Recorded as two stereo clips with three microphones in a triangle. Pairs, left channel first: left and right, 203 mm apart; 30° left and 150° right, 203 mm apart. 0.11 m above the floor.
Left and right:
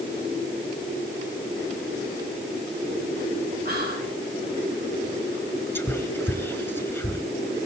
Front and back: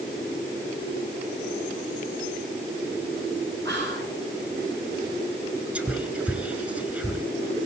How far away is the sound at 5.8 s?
About 1.1 m.